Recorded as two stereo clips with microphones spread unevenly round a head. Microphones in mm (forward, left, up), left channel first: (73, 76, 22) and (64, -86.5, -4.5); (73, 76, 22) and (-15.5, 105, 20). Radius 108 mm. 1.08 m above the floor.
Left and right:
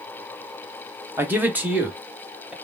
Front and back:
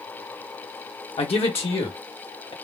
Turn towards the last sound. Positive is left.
turn(degrees=-10)